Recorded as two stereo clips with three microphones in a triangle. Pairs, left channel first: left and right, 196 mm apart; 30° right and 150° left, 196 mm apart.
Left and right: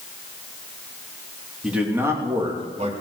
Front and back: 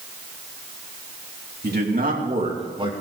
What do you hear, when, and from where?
1.6 s a man speaking: 175° right, 3 m; by 2.9 s 145° right, 2.5 m